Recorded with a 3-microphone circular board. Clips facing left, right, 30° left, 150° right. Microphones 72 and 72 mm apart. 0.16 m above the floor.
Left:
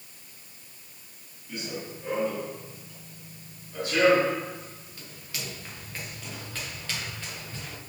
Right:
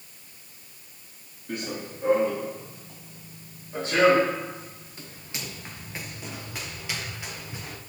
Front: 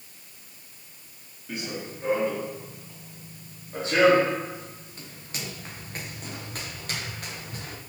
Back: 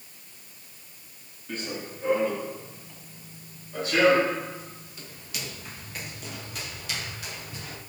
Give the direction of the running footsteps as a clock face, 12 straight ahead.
2 o'clock.